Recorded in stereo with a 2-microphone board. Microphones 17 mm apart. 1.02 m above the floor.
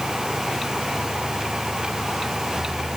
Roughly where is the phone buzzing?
No phone buzzing in this recording.